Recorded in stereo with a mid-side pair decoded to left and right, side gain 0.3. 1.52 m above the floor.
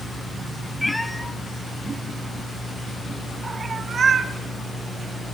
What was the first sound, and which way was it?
A cat meowing, 10° left.